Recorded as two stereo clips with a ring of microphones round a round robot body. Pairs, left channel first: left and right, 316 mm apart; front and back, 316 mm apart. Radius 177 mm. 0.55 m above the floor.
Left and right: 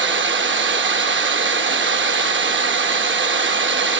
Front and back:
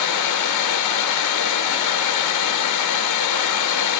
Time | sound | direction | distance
0.0 | running water | 35° right | 0.8 m